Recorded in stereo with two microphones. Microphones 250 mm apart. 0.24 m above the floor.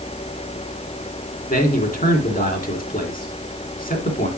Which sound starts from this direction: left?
A man speaking, at 1.5 s.